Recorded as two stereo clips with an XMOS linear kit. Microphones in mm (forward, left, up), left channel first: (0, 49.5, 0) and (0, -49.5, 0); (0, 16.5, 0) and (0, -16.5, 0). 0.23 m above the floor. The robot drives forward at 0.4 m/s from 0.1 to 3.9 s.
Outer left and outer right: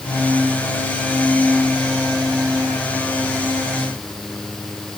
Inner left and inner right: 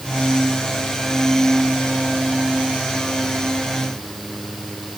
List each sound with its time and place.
Only background noise.